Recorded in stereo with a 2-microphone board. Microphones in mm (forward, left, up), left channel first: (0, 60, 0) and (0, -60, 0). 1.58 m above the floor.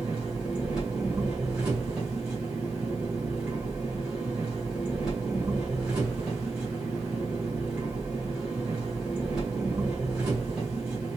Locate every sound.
0.0 s an engine running: 10° right (ahead or behind), 2.5 m